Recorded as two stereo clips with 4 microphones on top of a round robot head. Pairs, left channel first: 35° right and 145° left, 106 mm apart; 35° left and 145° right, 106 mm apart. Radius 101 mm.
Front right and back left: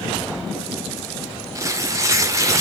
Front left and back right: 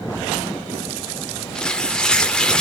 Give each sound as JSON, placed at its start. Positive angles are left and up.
{"t": 1.6, "sound": "tearing paper", "azimuth_deg": 110, "distance_m": 0.7}